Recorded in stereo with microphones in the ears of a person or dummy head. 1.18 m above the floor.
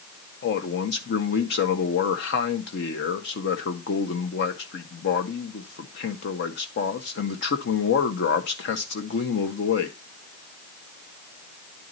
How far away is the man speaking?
About 1.3 m.